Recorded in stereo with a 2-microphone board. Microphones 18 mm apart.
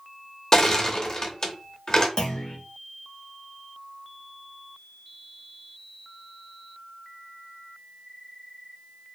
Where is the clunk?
35° left (ahead or behind), 0.7 m.